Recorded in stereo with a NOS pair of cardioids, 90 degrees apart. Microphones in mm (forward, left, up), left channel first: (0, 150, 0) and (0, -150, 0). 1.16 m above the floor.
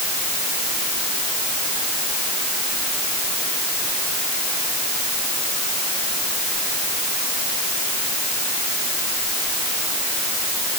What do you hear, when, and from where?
Only background noise.